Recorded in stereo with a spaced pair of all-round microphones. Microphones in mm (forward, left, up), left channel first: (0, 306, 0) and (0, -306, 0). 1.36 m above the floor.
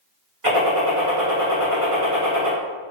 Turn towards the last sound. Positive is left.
turn(degrees=-55)  # may be behind; listen again after turning